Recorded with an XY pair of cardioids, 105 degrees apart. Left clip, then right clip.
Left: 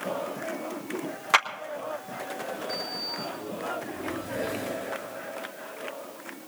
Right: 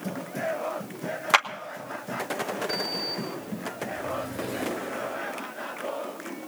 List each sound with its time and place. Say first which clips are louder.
1.3 s a clap: right 1 dB; 20° right, 1.4 m
2.7 s a sliding door: right 3 dB; 35° right, 4 m